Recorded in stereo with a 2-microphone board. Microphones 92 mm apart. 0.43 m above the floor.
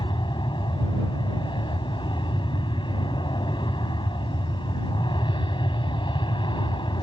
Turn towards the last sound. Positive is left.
turn(degrees=65)  # may be behind; listen again after turning